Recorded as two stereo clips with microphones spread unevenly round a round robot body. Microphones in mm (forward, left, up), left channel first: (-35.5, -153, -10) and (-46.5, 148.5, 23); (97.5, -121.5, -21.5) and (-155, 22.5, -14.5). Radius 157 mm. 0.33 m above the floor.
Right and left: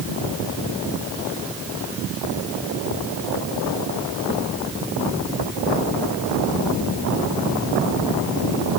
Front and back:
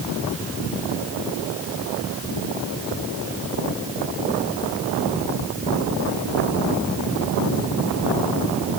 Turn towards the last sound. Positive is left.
No sound to turn to.